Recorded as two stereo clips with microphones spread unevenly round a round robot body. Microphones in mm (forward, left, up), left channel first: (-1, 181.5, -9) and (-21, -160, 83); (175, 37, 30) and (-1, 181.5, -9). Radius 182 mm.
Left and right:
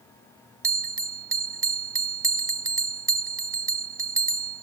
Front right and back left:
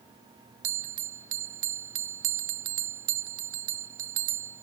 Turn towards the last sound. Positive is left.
turn(degrees=180)